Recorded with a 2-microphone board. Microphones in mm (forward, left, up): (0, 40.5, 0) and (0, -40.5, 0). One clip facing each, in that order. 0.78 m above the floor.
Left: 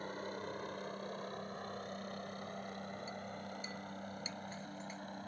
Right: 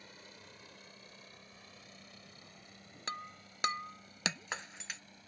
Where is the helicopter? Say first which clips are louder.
Left 13 dB; 45° left (ahead or behind).